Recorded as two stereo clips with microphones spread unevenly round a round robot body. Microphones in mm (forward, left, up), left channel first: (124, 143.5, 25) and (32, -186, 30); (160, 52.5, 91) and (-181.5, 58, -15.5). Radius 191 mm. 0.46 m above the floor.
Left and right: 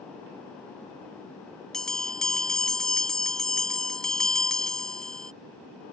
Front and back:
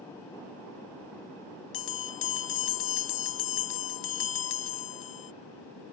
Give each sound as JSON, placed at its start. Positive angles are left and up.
{"t": 1.7, "sound": "a bell", "azimuth_deg": -15}